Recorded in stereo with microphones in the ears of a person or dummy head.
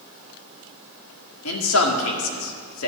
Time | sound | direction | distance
1.4 | a man speaking | 80° left | 2.0 m